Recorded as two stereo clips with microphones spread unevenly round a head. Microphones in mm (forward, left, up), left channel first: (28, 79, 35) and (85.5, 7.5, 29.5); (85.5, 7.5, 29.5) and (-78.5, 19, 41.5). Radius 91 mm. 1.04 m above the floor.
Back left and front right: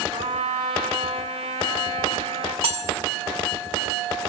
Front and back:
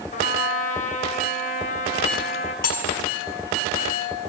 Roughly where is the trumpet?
Ahead right.